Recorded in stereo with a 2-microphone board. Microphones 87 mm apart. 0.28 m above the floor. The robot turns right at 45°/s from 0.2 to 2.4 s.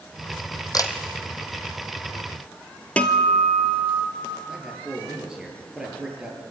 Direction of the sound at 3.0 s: 15° left (ahead or behind).